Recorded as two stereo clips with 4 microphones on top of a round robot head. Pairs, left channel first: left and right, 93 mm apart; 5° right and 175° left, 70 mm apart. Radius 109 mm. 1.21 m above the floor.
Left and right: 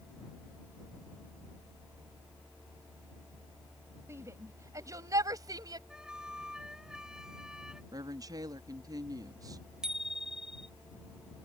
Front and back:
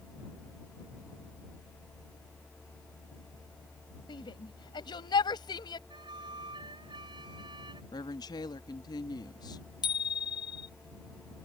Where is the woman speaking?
35° right.